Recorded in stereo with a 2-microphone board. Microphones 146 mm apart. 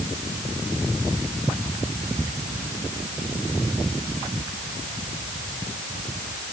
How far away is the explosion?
I don't hear an explosion.